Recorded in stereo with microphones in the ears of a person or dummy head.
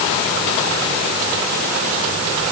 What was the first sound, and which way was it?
Only background noise.